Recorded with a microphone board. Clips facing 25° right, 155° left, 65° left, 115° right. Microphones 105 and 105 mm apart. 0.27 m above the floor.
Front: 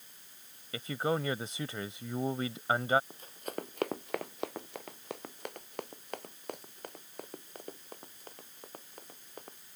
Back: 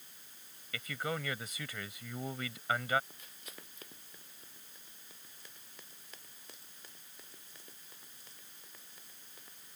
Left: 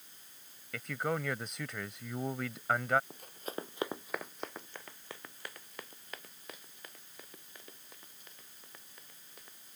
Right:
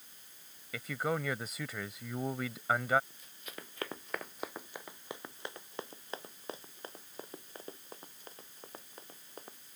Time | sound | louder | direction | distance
0.7 | a man speaking | front 6 dB, even | 25° right | ?
3.1 | running footsteps | front 14 dB, left 9 dB | 35° left | ?